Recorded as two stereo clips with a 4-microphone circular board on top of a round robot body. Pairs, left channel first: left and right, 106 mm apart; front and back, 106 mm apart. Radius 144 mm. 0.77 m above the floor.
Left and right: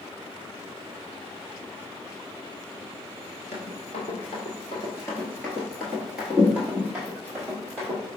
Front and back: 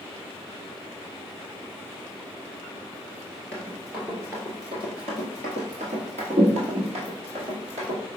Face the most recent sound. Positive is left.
turn(degrees=-160)